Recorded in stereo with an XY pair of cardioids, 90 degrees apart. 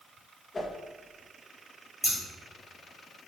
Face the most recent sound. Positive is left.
turn(degrees=-20)